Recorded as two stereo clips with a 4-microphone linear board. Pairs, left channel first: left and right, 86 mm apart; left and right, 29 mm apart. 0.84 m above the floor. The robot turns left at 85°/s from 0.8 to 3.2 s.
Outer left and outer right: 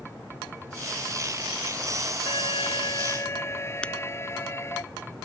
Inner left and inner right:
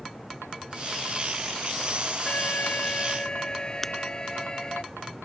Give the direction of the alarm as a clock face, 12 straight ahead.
8 o'clock.